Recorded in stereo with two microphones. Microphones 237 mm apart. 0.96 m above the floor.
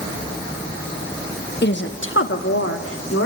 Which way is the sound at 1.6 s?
45° left (ahead or behind).